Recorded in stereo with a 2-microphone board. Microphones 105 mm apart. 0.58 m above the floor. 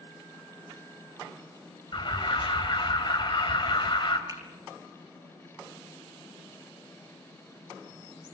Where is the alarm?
50° left (ahead or behind), 3 m.